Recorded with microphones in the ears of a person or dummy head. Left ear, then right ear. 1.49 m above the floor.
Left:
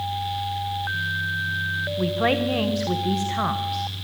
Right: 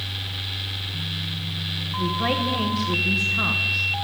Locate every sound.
2.0 s a woman speaking: 15° left (ahead or behind), 1.1 m